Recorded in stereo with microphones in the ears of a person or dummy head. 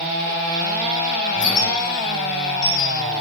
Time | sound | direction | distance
1.3 | a squeak | 40° left (ahead or behind) | 1.0 m